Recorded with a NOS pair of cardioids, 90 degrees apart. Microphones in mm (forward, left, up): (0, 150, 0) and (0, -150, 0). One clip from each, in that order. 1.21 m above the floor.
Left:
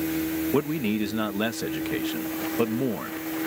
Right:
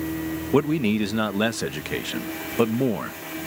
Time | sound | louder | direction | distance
0.5 | a man speaking | right 7 dB | 20° right | ?